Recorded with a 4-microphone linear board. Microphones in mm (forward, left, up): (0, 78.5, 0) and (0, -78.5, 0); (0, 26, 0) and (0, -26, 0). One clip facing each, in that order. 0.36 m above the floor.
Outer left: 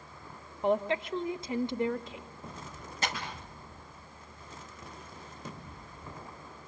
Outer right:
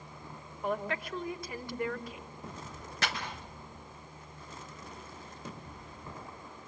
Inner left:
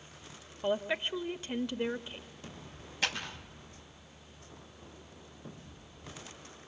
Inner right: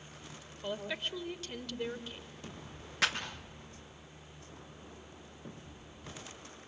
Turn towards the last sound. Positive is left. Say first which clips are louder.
# outer left 1 dB, inner right 2 dB
turn(degrees=-75)  # may be behind; listen again after turning